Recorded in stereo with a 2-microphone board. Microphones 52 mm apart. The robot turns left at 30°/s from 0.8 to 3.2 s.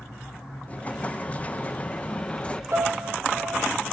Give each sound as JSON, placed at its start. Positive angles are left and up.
{"t": 0.7, "sound": "an explosion", "side_deg": 25, "distance_m": 0.7}
{"t": 2.7, "sound": "a piano", "side_deg": -60, "distance_m": 2.5}